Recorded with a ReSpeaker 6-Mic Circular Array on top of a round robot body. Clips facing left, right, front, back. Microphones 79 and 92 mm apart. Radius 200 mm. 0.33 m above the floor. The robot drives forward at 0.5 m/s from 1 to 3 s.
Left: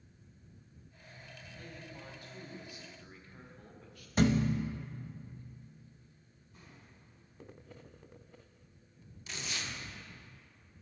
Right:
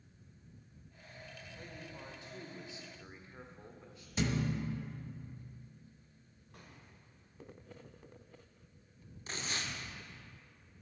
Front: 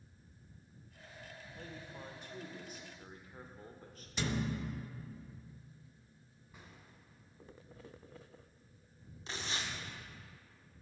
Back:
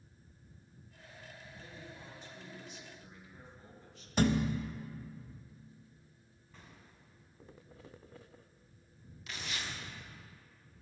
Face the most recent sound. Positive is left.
turn(degrees=-50)